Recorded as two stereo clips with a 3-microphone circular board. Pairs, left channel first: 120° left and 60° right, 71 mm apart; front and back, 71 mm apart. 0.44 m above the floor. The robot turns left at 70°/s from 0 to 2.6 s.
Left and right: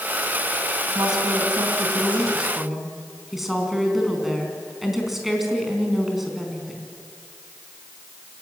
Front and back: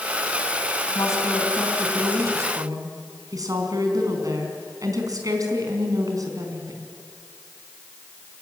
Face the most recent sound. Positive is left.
turn(degrees=-145)